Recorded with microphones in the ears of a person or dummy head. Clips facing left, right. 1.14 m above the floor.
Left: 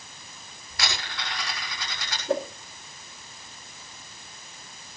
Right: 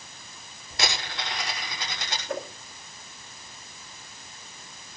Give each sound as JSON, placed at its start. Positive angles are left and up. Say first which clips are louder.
{"t": 0.7, "sound": "a dropped coin", "louder": "right 3 dB", "side_deg": -25, "distance_m": 7.5}
{"t": 2.3, "sound": "a whoosh", "louder": "left 7 dB", "side_deg": 30, "distance_m": 2.0}